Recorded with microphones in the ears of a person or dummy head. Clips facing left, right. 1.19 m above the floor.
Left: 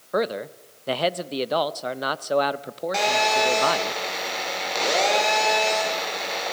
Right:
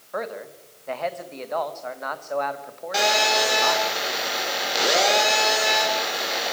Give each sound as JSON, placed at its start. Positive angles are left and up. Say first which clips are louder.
{"t": 0.1, "sound": "a man speaking", "louder": "left 6 dB", "side_deg": 45, "distance_m": 0.8}
{"t": 2.9, "sound": "a phone buzzing", "louder": "right 1 dB", "side_deg": -5, "distance_m": 4.5}